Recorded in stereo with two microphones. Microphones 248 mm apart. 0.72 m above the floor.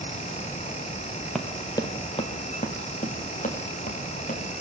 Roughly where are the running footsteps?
Centre.